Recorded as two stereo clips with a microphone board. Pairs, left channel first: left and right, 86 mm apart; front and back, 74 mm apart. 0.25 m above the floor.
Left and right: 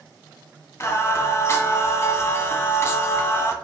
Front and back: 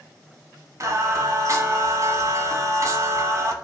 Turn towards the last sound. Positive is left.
turn(degrees=145)